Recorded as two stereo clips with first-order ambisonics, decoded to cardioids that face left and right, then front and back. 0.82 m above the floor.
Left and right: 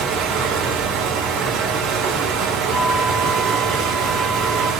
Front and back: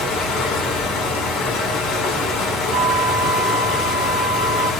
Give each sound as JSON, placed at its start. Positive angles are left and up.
{"t": 0.0, "sound": "running water", "azimuth_deg": -50, "distance_m": 1.7}
{"t": 2.7, "sound": "a flute", "azimuth_deg": 135, "distance_m": 1.2}